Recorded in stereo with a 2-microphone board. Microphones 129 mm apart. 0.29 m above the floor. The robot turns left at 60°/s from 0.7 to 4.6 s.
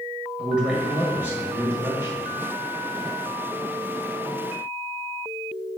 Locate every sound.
0.4 s a man speaking: 5° right (ahead or behind), 1.1 m; by 2.2 s 15° right (ahead or behind), 1.1 m